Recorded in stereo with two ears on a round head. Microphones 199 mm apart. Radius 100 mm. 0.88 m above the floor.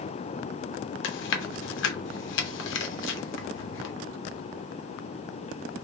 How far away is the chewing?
About 0.9 m.